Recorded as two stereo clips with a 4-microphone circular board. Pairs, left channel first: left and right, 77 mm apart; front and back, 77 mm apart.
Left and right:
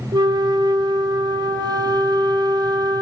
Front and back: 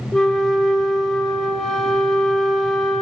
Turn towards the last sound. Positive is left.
turn(degrees=-80)